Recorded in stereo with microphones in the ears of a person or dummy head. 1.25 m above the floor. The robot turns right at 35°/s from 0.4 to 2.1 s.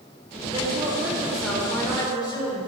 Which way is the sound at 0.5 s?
30° right.